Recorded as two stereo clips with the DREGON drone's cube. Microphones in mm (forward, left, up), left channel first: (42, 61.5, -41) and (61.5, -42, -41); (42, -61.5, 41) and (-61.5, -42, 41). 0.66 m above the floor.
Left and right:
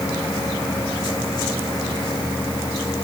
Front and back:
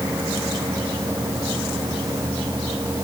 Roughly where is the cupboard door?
I don't hear a cupboard door.